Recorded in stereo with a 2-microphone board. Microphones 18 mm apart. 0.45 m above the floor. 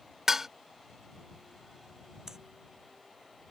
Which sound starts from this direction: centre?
Dishes clattering, at 0.3 s.